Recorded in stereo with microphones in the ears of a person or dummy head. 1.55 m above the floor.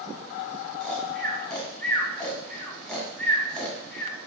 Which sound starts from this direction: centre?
Snoring, at 0.8 s.